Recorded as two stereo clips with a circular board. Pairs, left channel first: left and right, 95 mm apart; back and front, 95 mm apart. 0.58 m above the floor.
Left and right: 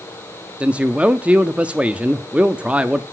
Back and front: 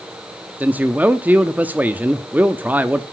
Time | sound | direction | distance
0.6 | a man speaking | 35° right | 0.6 m